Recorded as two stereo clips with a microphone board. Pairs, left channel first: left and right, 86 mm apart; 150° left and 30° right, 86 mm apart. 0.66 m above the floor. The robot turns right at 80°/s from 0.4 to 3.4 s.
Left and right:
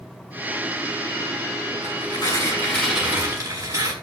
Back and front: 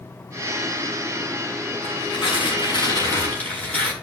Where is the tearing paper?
100° left, 6 m; by 3.9 s 135° right, 6 m.